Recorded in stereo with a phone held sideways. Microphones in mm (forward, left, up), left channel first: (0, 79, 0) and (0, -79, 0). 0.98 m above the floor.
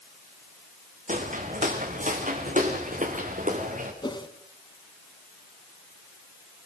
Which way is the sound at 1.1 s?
50° right (ahead or behind).